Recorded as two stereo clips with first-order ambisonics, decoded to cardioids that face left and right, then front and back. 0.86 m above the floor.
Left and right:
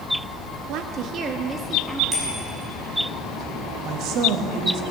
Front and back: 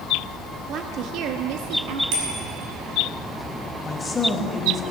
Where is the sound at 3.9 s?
70° right, 1.4 m.